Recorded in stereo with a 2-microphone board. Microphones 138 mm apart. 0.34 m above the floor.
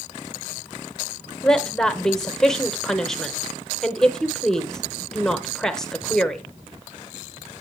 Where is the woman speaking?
5° left (ahead or behind), 0.9 m.